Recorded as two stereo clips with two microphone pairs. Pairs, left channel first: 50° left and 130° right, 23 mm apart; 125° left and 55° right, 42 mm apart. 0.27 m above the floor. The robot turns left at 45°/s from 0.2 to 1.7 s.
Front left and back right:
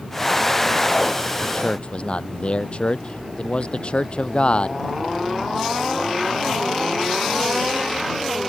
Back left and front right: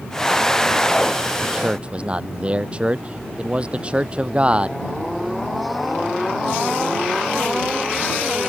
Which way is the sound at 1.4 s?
25° left.